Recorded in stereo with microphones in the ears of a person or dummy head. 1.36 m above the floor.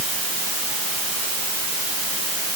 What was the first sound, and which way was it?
Only background noise.